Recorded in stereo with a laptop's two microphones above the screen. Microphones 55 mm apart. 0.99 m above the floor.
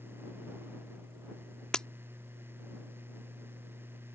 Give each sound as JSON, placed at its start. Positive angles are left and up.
{"t": 0.0, "sound": "a fan", "side_deg": -40}
{"t": 1.7, "sound": "breaking glass", "side_deg": 15}